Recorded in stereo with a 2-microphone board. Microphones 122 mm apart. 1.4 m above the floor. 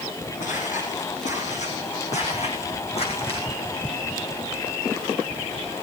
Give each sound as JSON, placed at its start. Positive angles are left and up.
{"t": 0.4, "sound": "footsteps", "side_deg": 75, "distance_m": 5.0}